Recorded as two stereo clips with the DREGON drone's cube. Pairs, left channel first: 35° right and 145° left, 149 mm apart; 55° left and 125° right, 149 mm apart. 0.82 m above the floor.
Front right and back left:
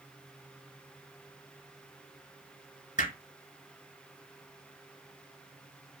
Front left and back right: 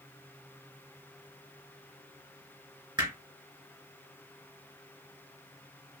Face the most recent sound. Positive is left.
turn(degrees=-65)